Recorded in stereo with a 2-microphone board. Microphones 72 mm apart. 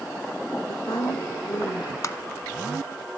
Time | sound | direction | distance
0.7 | a woman speaking | 65° left (ahead or behind) | 4 m
2.0 | tapping | 45° left (ahead or behind) | 1.0 m